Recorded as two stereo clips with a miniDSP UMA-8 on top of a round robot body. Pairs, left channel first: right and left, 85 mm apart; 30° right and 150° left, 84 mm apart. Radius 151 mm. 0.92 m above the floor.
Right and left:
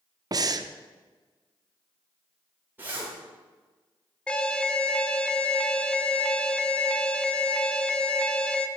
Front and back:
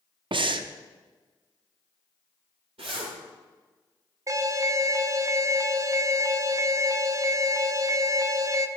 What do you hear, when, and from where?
0.3 s breathing: 135° left, 0.6 m
2.8 s a zipper: 160° left, 1.0 m
4.3 s an alarm: 165° right, 0.8 m